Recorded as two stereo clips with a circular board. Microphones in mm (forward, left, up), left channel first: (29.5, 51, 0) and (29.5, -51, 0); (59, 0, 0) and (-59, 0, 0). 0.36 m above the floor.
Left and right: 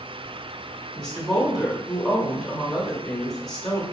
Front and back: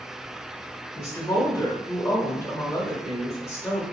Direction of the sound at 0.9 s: 10° left.